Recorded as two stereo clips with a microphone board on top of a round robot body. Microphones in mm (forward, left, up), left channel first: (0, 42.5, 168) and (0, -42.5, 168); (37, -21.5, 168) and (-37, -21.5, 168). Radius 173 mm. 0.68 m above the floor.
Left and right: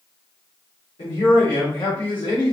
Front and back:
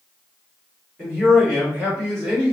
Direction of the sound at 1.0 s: 85° left.